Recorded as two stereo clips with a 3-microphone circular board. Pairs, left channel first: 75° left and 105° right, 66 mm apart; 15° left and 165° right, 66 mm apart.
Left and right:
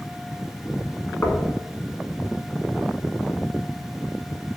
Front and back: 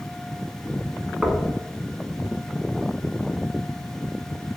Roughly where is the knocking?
Behind left.